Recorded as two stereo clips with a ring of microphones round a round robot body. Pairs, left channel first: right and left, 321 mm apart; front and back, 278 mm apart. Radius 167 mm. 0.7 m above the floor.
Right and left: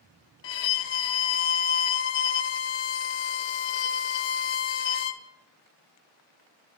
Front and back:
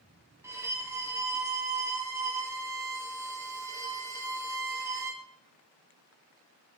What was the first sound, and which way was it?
A violin, 95° right.